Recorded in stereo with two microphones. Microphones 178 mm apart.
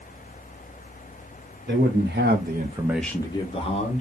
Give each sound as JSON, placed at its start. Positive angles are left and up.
{"t": 1.7, "sound": "a man speaking", "side_deg": -70, "distance_m": 1.3}